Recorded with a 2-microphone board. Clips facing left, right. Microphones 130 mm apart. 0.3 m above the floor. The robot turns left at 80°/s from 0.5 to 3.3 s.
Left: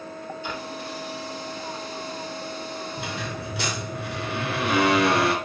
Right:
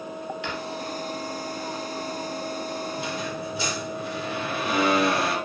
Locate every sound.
0.4 s a drawer: 80° right, 3 m; by 0.6 s 75° right (ahead or behind), 3 m
3.0 s a squeak: 60° left (ahead or behind), 3 m; by 5.3 s 75° left (ahead or behind), 3 m